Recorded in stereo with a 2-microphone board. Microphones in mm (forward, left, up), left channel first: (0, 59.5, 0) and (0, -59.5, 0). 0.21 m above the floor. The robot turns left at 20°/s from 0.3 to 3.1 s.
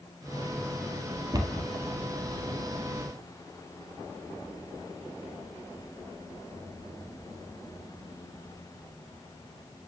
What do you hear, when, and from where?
1.3 s a cupboard door: 35° right (ahead or behind), 1.5 m; by 1.7 s 30° right (ahead or behind), 1.5 m